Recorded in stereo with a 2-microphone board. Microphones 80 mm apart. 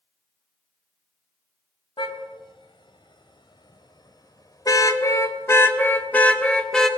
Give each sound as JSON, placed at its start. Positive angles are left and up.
{"t": 2.0, "sound": "a car horn", "side_deg": 85, "distance_m": 3.5}